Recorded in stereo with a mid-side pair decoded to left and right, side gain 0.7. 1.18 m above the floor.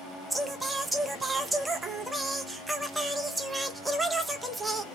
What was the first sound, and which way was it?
Singing, 10° right.